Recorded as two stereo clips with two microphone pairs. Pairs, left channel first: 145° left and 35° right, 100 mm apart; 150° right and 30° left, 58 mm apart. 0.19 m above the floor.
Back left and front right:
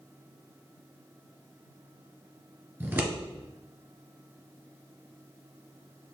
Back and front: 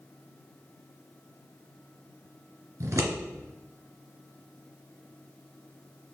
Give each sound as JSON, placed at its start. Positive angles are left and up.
{"t": 2.8, "sound": "scissors", "azimuth_deg": 30, "distance_m": 1.1}